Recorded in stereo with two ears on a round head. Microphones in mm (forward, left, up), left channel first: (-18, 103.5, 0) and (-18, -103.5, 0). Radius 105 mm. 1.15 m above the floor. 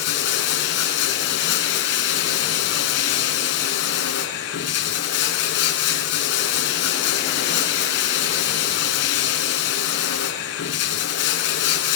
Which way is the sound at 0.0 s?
50° left (ahead or behind).